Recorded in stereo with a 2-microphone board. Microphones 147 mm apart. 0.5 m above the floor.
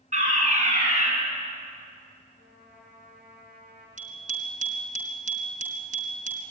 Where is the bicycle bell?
60° right (ahead or behind), 4 m.